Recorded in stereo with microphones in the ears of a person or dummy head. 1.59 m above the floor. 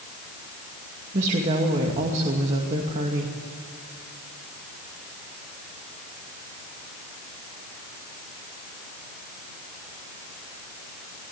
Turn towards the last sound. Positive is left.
turn(degrees=-40)  # may be behind; listen again after turning